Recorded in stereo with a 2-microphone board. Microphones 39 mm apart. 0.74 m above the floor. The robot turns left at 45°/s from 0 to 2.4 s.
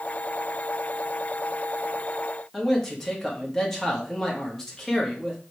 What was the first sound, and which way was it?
A man speaking, 10° left (ahead or behind).